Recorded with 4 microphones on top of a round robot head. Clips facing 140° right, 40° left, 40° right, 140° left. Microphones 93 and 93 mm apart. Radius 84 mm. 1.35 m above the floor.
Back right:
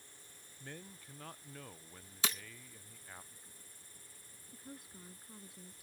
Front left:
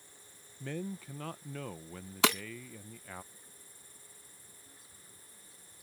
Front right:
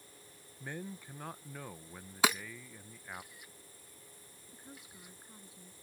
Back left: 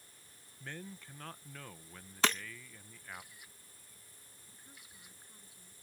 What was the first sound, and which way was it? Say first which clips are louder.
A man speaking: front left 12 dB, front right 4 dB; 40° left.